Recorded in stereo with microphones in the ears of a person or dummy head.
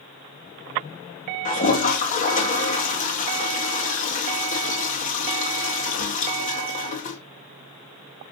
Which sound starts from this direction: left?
A toilet flushing, at 1.4 s.